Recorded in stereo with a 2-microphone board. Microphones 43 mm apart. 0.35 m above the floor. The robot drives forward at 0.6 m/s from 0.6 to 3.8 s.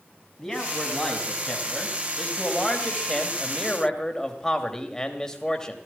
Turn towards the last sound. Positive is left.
turn(degrees=10)  # may be behind; listen again after turning